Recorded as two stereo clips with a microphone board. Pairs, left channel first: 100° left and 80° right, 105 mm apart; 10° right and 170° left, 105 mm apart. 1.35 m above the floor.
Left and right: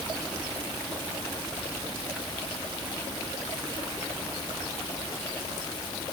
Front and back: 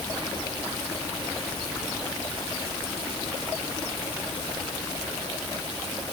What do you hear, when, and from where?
Only background noise.